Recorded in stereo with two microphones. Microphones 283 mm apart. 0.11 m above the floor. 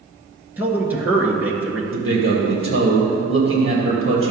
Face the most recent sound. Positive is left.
turn(degrees=-50)  # may be behind; listen again after turning